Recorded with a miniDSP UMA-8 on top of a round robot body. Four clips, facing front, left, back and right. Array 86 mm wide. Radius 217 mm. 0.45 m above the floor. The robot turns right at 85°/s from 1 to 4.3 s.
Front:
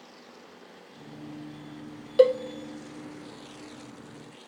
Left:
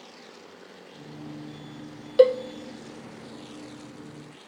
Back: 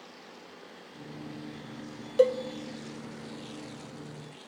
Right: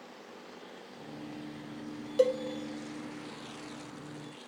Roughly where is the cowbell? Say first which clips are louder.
Left 9 dB, front 4 dB; ahead left.